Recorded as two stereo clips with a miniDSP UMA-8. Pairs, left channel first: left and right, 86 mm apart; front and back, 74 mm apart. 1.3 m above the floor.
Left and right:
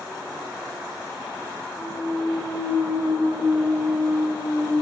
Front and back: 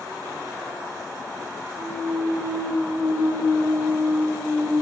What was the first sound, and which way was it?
A clunk, 165° right.